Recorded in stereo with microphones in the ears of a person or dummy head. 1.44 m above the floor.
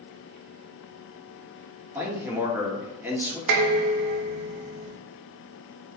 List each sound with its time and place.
1.9 s a man speaking: 15° right (ahead or behind), 2.0 m
3.5 s dishes clattering: 55° right (ahead or behind), 1.0 m